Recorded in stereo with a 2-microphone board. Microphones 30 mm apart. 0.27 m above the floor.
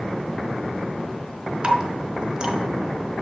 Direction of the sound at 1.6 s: 30° right (ahead or behind).